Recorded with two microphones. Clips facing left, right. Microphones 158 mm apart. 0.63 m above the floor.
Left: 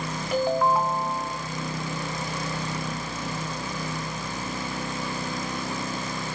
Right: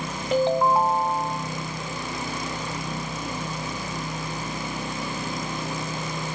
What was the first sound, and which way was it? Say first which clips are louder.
A ringtone: right 3 dB; 25° right (ahead or behind).